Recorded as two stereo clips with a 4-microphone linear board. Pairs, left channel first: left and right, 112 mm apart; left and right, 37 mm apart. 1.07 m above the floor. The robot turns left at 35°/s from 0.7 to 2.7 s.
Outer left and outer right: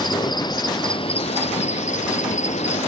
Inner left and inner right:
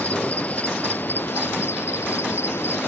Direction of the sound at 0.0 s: 140° left.